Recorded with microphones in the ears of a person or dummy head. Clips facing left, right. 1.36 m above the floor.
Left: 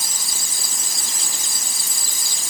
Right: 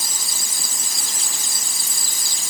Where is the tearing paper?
I don't hear tearing paper.